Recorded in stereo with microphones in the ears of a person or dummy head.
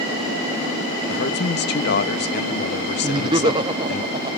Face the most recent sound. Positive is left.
turn(degrees=-15)  # may be behind; listen again after turning